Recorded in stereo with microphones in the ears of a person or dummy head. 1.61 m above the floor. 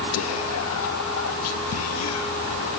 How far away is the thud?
I don't hear a thud.